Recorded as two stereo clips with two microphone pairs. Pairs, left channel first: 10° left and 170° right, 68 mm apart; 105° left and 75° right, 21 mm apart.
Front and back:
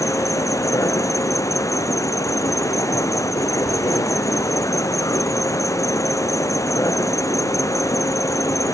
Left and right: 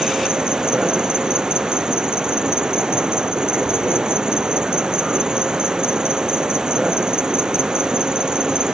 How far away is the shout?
I don't hear a shout.